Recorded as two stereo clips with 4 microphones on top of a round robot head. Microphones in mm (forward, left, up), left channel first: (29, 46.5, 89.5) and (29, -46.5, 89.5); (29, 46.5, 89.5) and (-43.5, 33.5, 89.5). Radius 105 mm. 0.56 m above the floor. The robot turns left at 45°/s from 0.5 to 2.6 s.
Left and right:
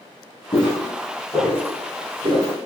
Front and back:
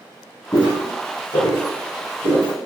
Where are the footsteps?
50° left, 0.8 m; by 2.5 s 65° right, 1.8 m.